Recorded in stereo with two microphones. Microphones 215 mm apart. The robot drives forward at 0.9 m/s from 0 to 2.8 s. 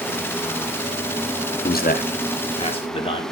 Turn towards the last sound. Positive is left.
turn(degrees=25)  # may be behind; listen again after turning